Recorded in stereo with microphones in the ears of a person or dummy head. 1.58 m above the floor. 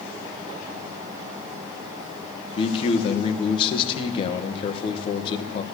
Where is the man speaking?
30° left (ahead or behind), 1.7 m.